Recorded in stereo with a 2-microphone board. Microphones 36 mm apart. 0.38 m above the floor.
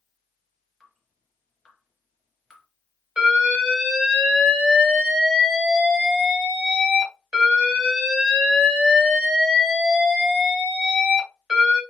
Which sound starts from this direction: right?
An alarm, at 3.2 s.